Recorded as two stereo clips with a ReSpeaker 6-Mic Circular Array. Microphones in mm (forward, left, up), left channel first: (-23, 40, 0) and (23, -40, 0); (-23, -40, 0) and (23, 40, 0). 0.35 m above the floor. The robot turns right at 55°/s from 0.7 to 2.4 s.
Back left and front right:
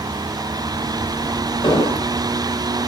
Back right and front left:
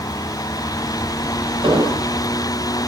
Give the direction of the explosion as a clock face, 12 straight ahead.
9 o'clock.